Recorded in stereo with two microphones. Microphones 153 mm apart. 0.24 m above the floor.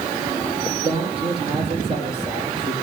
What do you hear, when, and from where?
0.8 s a man speaking: 35° right (ahead or behind), 7.5 m